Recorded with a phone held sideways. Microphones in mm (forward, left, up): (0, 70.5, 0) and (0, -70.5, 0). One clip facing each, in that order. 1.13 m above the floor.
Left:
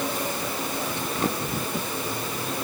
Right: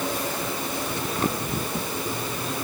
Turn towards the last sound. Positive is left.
No sound to turn to.